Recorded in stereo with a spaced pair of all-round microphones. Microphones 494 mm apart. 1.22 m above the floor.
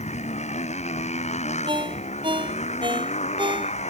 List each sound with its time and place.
0.0 s a motorcycle: 15° left (ahead or behind)
1.7 s a ringtone: 10° right (ahead or behind)